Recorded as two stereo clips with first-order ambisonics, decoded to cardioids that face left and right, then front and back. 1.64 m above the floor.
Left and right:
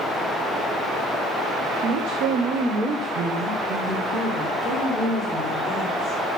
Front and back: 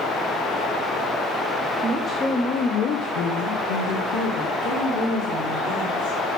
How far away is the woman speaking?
About 0.9 m.